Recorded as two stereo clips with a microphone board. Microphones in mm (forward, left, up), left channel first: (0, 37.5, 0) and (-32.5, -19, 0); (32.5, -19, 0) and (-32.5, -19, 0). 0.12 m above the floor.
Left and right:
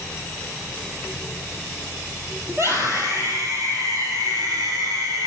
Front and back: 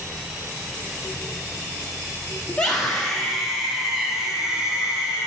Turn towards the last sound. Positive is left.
turn(degrees=-100)